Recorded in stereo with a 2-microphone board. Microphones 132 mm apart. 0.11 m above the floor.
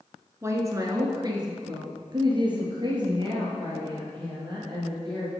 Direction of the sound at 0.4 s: 20° right (ahead or behind).